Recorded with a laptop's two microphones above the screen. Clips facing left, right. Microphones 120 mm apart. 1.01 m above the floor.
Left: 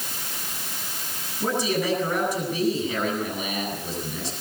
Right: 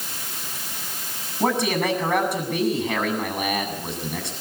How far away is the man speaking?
About 8.5 m.